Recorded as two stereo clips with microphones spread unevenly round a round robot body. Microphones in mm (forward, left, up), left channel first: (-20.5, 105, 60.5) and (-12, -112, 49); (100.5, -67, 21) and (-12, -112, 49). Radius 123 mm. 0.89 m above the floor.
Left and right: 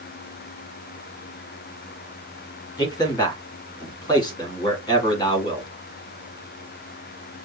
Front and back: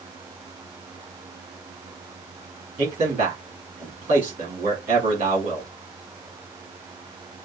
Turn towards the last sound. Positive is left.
turn(degrees=165)